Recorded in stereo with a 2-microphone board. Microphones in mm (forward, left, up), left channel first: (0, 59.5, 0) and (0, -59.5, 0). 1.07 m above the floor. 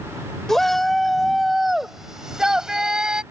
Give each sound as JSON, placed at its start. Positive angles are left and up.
{"t": 0.5, "sound": "a shout", "side_deg": 5}